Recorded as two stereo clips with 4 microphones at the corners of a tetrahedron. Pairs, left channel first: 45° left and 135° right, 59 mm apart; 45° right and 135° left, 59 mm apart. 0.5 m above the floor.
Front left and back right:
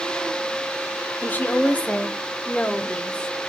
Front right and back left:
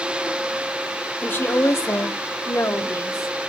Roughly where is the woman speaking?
Ahead.